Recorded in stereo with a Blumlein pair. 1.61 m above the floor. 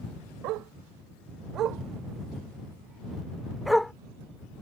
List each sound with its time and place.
0.4 s a dog barking: 40° right; by 3.9 s 5° left